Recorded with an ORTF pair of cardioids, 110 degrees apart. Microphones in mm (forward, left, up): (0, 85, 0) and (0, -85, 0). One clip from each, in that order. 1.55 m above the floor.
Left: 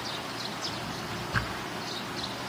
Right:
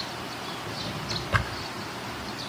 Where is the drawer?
60° right, 4 m.